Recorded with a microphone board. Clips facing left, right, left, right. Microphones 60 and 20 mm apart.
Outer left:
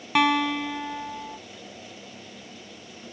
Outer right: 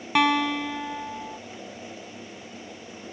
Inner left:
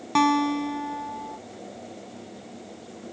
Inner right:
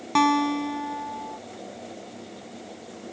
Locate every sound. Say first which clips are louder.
0.1 s a guitar: even, even; centre (ahead or behind)